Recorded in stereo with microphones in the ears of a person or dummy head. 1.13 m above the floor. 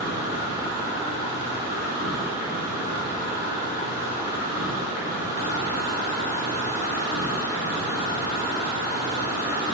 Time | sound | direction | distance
0.0 | an insect | 55° left (ahead or behind) | 3 m